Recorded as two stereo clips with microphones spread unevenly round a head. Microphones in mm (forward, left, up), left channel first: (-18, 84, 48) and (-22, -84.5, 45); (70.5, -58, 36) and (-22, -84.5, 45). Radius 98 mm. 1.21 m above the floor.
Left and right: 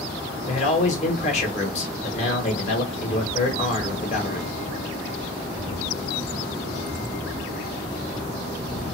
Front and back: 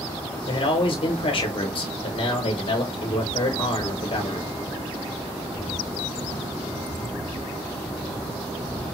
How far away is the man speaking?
About 1.5 m.